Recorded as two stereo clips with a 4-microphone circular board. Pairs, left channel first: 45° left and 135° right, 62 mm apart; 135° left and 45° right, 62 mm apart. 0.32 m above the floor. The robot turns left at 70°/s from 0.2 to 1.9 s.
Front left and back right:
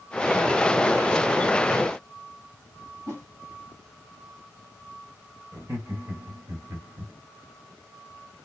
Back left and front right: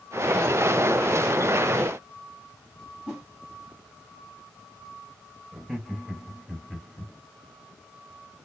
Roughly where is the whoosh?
Behind right.